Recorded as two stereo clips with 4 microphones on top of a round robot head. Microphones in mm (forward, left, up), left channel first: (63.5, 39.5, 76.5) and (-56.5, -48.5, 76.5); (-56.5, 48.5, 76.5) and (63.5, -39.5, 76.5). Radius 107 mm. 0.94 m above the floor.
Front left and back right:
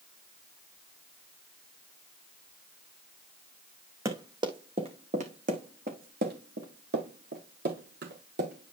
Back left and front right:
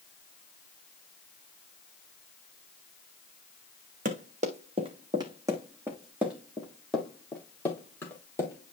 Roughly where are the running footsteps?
Right.